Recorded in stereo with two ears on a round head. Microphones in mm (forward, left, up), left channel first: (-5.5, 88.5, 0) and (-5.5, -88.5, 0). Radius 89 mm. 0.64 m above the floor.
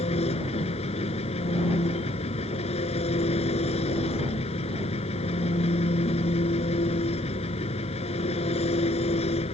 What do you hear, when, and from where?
0.0 s an engine running: 30° left (ahead or behind)